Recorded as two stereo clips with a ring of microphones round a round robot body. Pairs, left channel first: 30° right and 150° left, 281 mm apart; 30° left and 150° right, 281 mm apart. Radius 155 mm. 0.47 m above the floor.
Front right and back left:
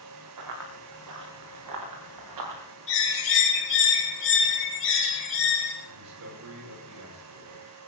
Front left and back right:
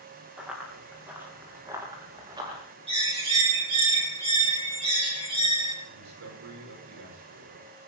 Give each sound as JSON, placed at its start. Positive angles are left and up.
{"t": 0.4, "sound": "running footsteps", "azimuth_deg": 125, "distance_m": 5.0}
{"t": 2.9, "sound": "a bird", "azimuth_deg": -80, "distance_m": 3.5}
{"t": 5.8, "sound": "a man speaking", "azimuth_deg": 180, "distance_m": 7.0}